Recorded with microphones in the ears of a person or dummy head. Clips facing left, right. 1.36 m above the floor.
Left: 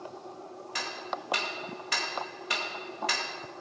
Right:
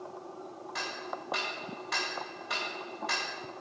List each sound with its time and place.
0.8 s ticking: 30° left (ahead or behind), 2 m